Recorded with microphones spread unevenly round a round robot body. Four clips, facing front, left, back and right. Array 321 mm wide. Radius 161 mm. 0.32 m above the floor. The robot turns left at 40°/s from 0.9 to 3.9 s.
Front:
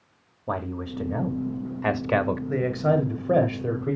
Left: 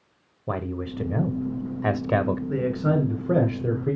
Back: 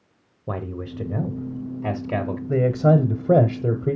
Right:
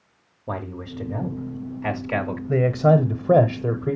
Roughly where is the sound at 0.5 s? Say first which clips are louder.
Left 2 dB, front 1 dB; behind left.